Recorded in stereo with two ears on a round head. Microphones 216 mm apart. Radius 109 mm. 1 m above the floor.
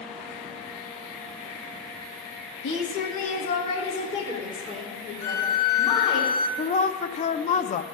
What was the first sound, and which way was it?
A woman speaking, 50° left (ahead or behind).